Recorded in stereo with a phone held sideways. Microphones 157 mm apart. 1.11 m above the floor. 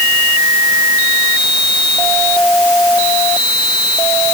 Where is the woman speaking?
I don't hear a woman speaking.